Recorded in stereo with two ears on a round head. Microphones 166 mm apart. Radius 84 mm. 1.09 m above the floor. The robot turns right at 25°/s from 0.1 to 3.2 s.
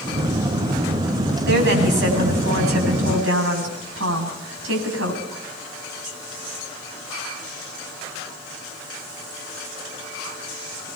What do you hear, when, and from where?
1.5 s a woman speaking: 115° right, 8.5 m; by 5.2 s 75° right, 8.5 m